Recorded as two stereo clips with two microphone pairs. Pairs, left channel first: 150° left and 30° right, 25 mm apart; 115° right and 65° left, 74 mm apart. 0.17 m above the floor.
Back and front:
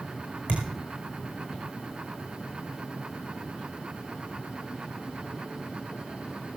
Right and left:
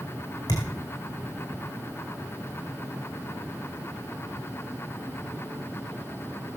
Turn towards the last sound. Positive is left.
turn(degrees=-70)